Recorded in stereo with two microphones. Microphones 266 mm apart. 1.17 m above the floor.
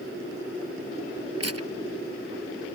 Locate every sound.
1.4 s tearing paper: 70° right (ahead or behind)